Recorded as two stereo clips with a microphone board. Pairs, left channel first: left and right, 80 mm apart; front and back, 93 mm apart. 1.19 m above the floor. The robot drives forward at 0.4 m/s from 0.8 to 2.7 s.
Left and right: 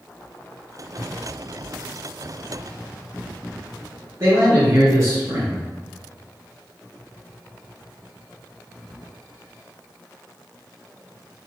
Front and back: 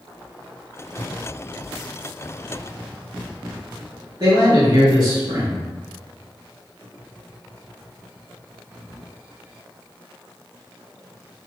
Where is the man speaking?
140° right, 2.0 m.